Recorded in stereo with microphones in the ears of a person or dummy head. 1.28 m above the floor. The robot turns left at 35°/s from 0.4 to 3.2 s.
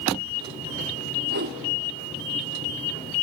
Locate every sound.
1.3 s a whoosh: 50° right (ahead or behind), 1.2 m; by 1.6 s 45° right (ahead or behind), 1.2 m